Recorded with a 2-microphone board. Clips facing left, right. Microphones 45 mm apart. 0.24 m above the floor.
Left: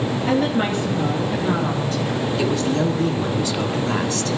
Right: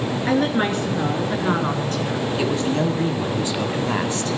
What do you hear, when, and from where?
0.3 s a woman speaking: 70° right (ahead or behind), 4 m; by 2.2 s 50° right (ahead or behind), 2.5 m
2.4 s a man speaking: 25° right (ahead or behind), 1.6 m